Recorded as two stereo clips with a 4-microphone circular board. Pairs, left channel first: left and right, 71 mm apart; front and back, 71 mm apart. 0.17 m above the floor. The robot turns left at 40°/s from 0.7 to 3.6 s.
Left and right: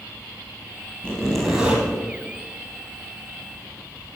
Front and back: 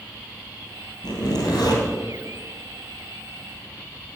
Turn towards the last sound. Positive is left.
turn(degrees=-90)